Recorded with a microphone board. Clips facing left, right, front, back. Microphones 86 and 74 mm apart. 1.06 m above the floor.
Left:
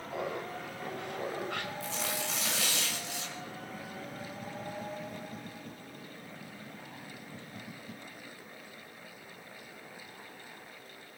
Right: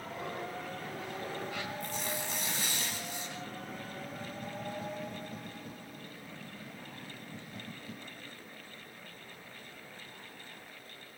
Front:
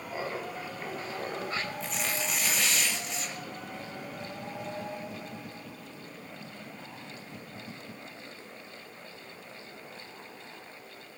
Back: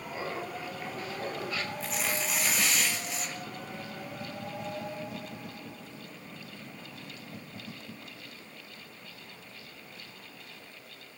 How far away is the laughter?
About 6.5 m.